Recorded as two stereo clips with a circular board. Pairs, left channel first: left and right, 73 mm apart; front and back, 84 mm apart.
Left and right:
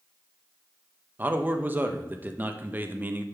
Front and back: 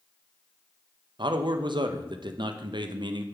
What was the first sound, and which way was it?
A man speaking, 155° right.